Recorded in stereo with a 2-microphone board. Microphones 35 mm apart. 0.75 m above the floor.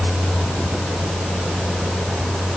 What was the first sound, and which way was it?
Only background noise.